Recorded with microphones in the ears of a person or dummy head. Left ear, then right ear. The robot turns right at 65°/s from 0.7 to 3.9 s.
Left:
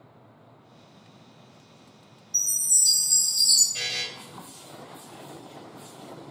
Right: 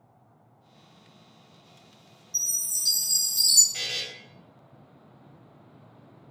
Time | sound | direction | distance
2.3 | a chime | 170° left | 0.6 m
3.7 | a buzzer | 80° right | 1.1 m